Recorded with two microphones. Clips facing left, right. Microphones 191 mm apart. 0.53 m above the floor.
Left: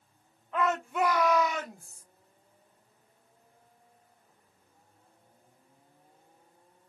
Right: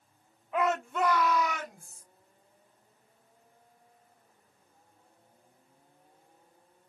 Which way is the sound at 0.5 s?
10° right (ahead or behind).